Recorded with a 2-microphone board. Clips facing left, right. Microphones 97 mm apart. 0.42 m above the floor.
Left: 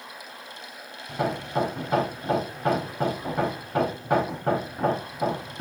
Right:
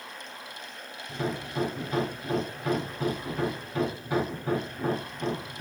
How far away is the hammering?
About 2.5 m.